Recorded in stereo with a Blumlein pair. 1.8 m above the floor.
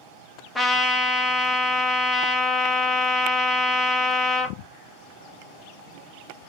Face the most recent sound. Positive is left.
turn(degrees=10)